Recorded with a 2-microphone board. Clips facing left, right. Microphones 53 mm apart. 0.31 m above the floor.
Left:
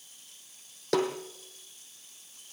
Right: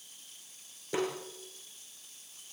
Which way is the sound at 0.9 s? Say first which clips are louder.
Left 5 dB; 75° left (ahead or behind).